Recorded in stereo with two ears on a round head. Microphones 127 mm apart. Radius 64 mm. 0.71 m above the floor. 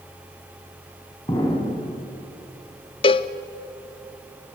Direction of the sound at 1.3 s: 30° left (ahead or behind).